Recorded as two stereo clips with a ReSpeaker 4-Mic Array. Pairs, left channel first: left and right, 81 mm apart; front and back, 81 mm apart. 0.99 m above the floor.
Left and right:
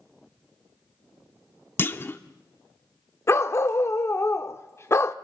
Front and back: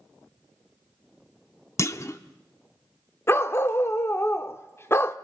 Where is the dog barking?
50° left, 0.7 m.